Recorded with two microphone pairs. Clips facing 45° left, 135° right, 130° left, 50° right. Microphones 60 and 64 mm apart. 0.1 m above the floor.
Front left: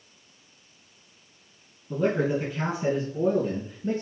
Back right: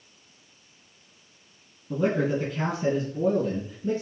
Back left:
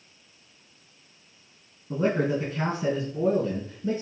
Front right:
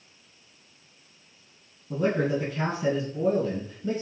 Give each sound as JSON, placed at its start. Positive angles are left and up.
{"t": 1.9, "sound": "a man speaking", "azimuth_deg": 145, "distance_m": 1.6}